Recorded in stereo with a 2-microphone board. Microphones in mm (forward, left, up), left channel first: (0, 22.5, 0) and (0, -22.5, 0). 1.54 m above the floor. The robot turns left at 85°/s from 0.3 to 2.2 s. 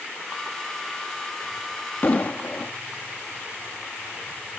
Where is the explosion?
45° left (ahead or behind); by 2.7 s 35° left (ahead or behind).